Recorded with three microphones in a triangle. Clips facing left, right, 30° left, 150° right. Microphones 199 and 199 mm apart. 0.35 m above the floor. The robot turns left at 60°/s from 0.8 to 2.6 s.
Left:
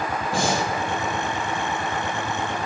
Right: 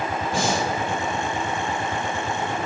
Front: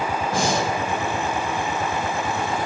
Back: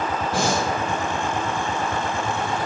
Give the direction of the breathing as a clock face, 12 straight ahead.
10 o'clock.